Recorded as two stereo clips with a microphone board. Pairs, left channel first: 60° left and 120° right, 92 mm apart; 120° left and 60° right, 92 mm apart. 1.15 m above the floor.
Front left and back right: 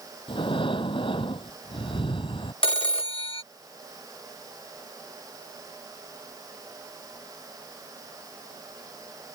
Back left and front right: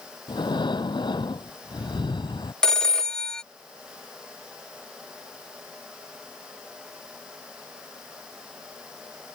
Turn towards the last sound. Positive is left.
turn(degrees=35)